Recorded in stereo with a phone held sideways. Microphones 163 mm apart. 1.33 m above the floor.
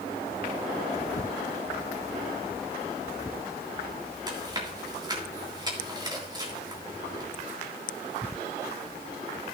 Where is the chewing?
25° right (ahead or behind), 3 m.